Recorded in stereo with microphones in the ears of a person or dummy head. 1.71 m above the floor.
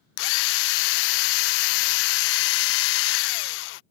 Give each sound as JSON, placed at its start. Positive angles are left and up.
{"t": 0.2, "sound": "a drill", "side_deg": 65}